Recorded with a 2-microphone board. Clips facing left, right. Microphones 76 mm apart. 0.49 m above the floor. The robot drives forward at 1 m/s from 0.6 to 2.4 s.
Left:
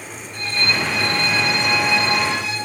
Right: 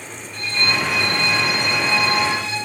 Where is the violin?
35° left (ahead or behind), 5.5 m; by 2.6 s 25° left (ahead or behind), 7 m.